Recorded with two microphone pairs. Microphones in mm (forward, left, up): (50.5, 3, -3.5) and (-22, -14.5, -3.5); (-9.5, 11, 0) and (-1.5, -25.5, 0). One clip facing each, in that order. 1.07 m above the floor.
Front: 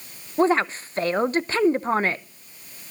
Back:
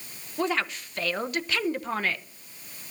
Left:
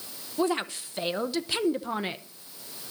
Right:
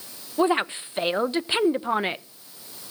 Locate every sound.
0.4 s a woman speaking: 30° right, 0.7 m